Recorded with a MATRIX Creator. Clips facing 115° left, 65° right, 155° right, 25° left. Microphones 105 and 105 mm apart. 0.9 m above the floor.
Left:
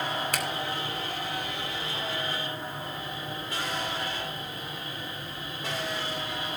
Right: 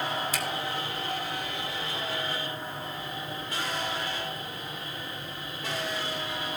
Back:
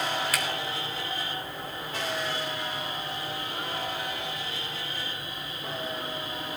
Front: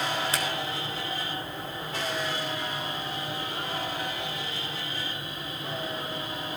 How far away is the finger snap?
About 3 m.